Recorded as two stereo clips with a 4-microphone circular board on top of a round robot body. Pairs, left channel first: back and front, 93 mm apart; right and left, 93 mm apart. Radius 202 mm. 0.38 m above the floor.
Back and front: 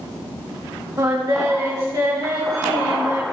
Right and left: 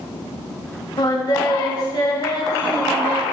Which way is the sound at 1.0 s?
45° right.